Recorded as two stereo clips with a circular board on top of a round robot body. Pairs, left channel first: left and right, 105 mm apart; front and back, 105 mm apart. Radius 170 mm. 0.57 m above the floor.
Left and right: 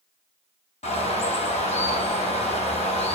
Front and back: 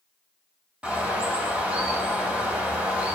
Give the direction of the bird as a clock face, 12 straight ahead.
9 o'clock.